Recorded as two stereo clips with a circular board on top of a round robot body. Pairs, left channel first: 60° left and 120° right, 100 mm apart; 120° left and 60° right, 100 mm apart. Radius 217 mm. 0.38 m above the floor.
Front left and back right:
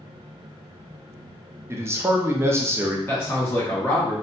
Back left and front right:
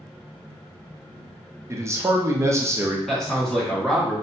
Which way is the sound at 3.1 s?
40° left.